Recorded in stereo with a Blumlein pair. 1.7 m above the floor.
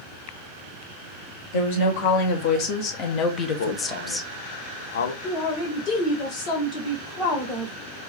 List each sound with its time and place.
1.5 s a woman speaking: 50° left, 1.8 m; by 4.3 s straight ahead, 0.6 m
3.6 s a man speaking: 60° left, 0.6 m
5.2 s a man speaking: 35° left, 1.7 m